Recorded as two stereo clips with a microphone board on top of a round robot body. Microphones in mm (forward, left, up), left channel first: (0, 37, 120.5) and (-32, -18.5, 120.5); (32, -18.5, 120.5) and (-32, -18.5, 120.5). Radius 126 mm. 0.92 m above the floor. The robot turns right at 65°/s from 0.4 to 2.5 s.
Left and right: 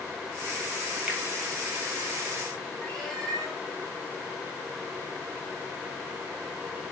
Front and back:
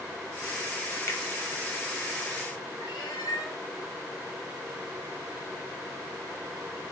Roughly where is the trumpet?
No trumpet in this recording.